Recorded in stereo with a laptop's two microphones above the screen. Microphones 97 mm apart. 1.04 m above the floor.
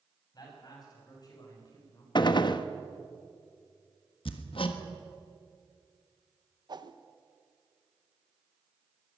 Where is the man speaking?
45° left (ahead or behind), 6.5 m; by 2.0 s 40° left (ahead or behind), 4 m.